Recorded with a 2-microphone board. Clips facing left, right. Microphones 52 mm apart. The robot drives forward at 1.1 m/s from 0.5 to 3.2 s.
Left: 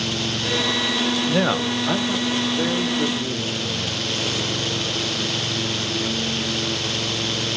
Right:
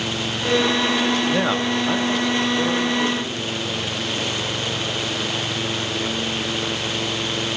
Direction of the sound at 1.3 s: Centre (ahead or behind).